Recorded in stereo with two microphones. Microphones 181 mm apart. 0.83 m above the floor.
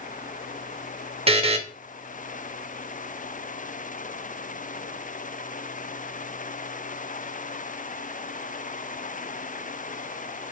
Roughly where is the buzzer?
Right.